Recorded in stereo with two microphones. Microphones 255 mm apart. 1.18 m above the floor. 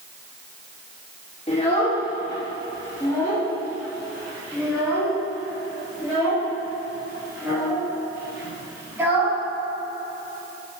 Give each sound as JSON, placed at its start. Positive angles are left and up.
{"t": 1.5, "sound": "a child speaking", "side_deg": 25, "distance_m": 2.5}